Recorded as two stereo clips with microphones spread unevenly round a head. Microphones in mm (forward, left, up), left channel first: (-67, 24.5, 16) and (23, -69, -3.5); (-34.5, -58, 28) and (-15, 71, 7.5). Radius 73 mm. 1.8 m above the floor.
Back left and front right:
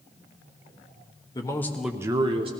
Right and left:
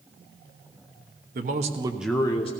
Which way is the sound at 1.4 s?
85° left.